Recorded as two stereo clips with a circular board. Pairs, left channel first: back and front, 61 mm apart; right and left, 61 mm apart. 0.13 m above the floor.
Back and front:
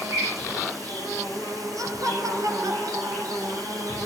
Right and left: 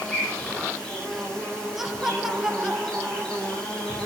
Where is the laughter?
10° left, 2.5 m.